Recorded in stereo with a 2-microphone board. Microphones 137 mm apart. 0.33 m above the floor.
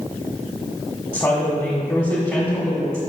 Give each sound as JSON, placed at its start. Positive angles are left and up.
{"t": 1.1, "sound": "a woman speaking", "side_deg": 25, "distance_m": 1.2}